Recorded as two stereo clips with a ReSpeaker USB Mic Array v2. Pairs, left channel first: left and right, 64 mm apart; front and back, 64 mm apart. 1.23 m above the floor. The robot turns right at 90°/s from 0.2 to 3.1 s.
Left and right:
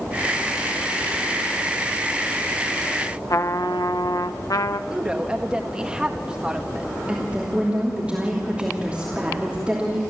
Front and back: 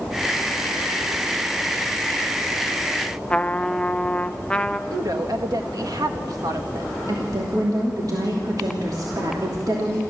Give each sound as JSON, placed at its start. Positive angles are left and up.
{"t": 3.3, "sound": "a trumpet", "azimuth_deg": 75, "distance_m": 0.7}
{"t": 4.9, "sound": "a woman speaking", "azimuth_deg": -165, "distance_m": 1.7}
{"t": 7.1, "sound": "a woman speaking", "azimuth_deg": -160, "distance_m": 3.0}